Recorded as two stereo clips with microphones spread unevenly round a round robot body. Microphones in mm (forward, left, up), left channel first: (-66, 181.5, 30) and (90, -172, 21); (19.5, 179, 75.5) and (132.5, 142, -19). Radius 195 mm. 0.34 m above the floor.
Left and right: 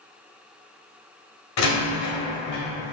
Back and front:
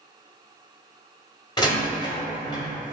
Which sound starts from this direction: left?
A door slam, at 1.6 s.